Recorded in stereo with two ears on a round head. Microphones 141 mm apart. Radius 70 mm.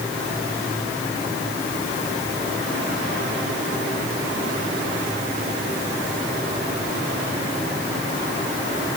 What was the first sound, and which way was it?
Only background noise.